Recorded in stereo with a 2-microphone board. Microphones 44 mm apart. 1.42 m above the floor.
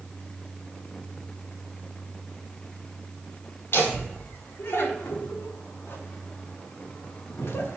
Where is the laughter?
60° left (ahead or behind), 4.5 m; by 7.8 s 75° left (ahead or behind), 2 m.